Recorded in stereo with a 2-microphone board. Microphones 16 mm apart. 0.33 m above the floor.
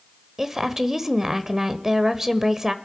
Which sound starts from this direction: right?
A woman speaking, at 0.4 s.